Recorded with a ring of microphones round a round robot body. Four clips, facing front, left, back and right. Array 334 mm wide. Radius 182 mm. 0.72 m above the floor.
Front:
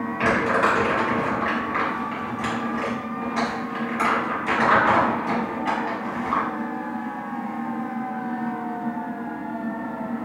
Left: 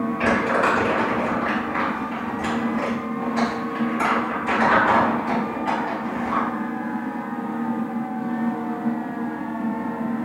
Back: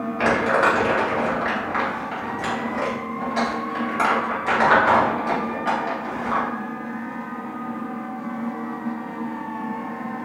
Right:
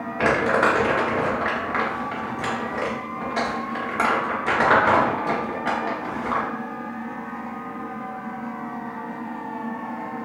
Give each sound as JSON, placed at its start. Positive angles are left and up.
{"t": 0.2, "sound": "crumpling", "azimuth_deg": -105, "distance_m": 1.3}